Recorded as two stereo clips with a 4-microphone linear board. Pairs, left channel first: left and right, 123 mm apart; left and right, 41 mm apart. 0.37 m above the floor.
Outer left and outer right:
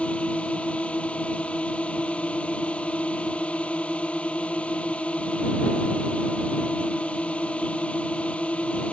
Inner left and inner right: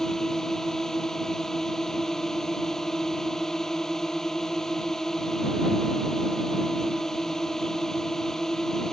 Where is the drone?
10° left (ahead or behind).